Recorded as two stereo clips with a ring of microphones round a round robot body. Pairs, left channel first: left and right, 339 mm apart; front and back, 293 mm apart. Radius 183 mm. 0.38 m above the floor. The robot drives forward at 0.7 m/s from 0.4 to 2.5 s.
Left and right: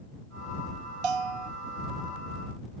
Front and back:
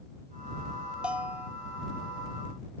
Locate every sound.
1.0 s a bell: 95° right